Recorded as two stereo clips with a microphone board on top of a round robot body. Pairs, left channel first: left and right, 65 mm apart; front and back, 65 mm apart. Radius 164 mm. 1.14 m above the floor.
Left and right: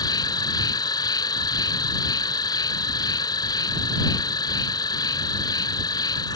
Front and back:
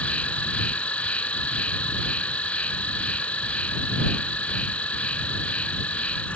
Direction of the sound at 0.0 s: 75° left.